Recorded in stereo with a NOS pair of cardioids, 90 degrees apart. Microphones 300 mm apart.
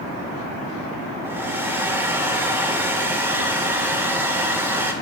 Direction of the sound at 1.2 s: 5° right.